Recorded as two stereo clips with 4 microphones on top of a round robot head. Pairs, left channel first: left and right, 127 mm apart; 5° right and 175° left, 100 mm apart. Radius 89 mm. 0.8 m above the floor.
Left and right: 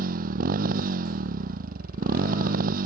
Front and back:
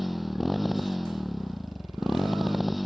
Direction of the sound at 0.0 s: 95° right.